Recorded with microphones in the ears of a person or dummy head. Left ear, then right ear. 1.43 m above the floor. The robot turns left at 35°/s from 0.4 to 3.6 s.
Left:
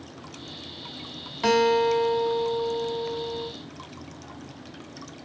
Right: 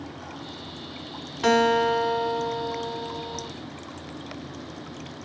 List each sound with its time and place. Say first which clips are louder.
1.4 s a guitar: even; straight ahead, 3 m; by 3.5 s 75° right, 3 m